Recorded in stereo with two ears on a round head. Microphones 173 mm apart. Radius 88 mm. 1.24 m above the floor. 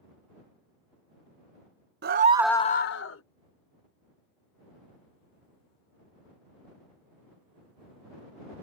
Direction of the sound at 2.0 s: 55° right (ahead or behind).